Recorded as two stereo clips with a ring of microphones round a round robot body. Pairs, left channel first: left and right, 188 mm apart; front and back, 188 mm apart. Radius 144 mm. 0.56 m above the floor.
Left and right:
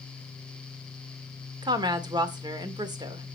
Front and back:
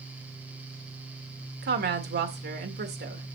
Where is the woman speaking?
155° right, 1.9 m.